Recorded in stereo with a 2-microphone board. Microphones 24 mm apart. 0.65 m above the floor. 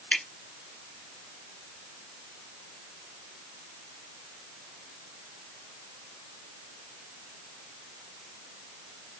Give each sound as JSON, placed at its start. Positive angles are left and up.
{"t": 0.1, "sound": "dripping", "side_deg": 65, "distance_m": 1.2}